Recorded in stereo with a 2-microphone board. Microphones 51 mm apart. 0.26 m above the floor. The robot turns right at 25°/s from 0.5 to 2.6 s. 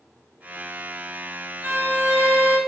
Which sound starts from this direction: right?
A violin, at 1.6 s.